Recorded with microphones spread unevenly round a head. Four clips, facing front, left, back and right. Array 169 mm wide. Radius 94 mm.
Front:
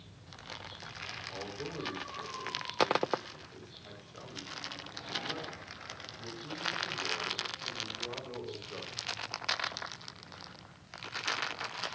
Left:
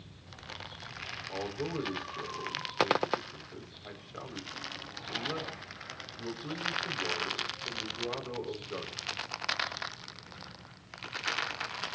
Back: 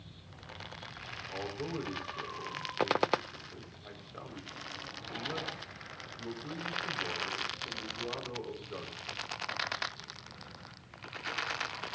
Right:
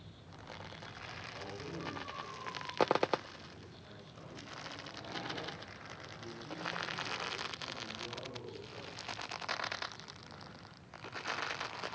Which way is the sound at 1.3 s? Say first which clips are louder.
Left 11 dB, back 4 dB; 105° left.